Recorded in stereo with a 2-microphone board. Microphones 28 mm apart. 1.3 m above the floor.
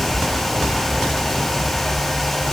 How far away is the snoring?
I don't hear snoring.